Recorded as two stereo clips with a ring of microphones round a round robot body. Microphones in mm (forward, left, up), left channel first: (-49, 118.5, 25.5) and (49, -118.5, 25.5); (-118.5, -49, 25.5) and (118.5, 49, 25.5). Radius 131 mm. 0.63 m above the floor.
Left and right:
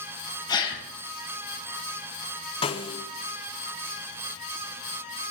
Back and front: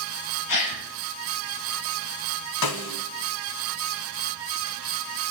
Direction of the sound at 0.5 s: 170° right.